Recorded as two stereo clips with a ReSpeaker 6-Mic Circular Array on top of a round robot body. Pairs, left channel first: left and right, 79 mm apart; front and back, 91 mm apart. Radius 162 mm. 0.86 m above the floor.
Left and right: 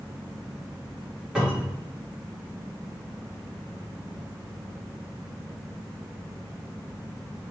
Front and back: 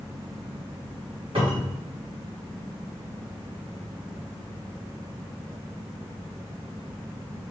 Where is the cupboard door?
170° right, 2 m.